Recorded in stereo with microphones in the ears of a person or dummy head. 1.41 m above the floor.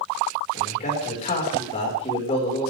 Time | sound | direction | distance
0.5 | a man speaking | 35° left (ahead or behind) | 6 m